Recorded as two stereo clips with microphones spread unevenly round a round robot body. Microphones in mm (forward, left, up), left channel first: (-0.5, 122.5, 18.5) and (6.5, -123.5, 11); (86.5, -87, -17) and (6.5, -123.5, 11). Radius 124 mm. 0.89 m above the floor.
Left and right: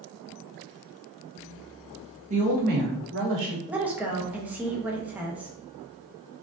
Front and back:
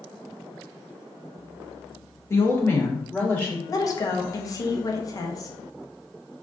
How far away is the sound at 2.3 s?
About 1.2 m.